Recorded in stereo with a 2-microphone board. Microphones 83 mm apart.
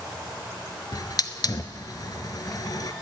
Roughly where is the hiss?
Left.